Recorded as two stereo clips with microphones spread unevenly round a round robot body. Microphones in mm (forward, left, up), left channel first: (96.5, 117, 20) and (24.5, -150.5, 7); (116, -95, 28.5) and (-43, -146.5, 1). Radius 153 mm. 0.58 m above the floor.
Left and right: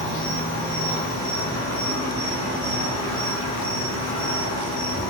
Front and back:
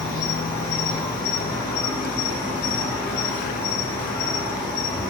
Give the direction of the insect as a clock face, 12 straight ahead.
9 o'clock.